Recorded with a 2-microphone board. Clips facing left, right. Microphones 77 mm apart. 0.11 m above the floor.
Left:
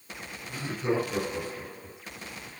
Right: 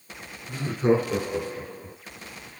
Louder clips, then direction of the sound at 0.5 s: Right 7 dB; 45° right (ahead or behind).